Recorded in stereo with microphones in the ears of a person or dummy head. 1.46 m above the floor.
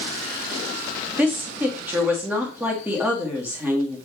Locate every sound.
1.2 s a woman speaking: 10° right (ahead or behind), 2.5 m